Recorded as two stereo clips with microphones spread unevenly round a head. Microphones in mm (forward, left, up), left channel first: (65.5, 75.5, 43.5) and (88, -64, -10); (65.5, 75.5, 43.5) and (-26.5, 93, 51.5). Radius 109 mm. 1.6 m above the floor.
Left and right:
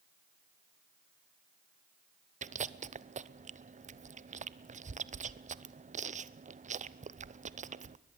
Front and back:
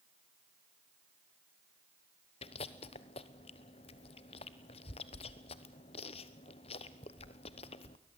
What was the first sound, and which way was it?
Chewing, 45° right.